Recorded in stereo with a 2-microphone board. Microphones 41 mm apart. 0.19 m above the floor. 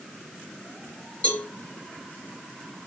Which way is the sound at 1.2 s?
35° left (ahead or behind).